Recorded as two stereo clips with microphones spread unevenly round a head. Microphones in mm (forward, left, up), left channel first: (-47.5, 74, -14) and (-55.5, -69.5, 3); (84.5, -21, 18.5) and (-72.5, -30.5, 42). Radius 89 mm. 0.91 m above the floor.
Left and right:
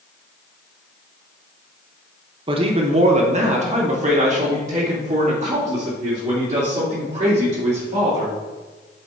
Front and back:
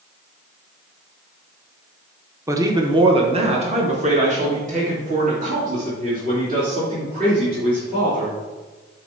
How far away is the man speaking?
About 1.0 m.